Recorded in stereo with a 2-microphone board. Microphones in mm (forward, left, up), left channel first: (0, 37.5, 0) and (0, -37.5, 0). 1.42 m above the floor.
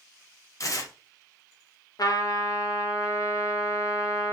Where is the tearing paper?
45° left (ahead or behind), 0.5 m.